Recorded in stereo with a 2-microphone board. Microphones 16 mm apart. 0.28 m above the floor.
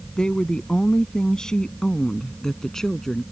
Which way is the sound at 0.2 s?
65° left (ahead or behind).